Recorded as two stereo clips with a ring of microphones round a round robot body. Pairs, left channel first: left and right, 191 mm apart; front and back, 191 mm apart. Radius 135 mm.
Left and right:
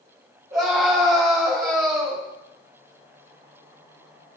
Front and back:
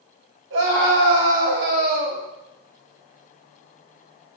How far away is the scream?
About 3 m.